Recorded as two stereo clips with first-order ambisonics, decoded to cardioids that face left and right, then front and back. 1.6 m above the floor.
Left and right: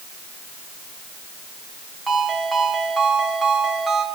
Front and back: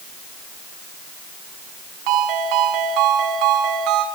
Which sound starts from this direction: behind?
A ringtone, at 2.1 s.